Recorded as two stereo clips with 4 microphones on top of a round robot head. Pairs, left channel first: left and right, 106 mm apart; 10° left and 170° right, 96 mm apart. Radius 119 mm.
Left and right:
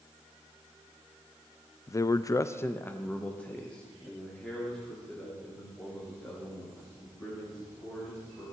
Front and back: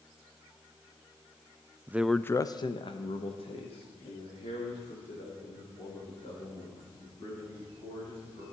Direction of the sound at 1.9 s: 135° left.